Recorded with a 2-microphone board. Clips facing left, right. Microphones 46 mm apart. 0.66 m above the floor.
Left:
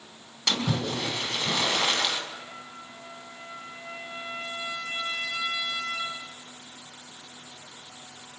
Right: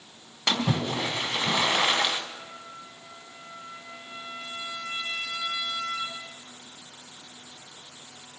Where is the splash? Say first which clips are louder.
Right 1 dB; 20° right (ahead or behind), 3 m.